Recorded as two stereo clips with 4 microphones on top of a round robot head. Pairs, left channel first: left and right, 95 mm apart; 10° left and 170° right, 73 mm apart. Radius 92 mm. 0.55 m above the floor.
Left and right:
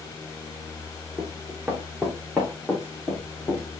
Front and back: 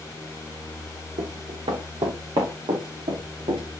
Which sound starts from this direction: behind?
Running footsteps, at 1.2 s.